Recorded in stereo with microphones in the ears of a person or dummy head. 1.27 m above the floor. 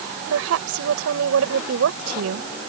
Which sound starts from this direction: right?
A woman speaking, at 0.3 s.